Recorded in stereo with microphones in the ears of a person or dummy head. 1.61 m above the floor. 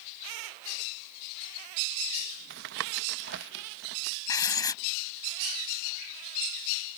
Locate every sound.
2.5 s tapping: 55° right (ahead or behind)
4.3 s writing: 20° left (ahead or behind)